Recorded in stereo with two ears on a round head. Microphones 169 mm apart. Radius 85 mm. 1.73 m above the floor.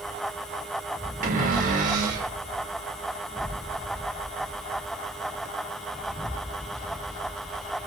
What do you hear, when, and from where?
1.2 s a cupboard door: 45° right (ahead or behind), 6 m